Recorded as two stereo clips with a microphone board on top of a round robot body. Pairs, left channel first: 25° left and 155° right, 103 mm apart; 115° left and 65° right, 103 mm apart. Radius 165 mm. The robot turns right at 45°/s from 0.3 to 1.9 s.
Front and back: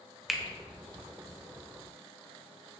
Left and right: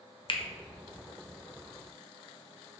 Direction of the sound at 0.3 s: 115° left.